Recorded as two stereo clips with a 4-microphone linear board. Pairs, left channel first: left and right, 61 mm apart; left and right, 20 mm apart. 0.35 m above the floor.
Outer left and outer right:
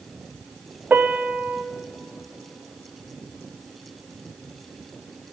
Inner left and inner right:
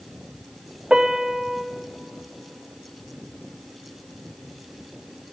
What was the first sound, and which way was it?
A piano, 25° right (ahead or behind).